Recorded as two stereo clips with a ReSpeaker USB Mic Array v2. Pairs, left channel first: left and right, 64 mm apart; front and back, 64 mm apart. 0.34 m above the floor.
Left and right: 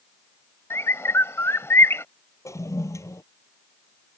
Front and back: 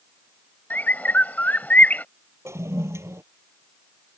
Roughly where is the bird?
Ahead left.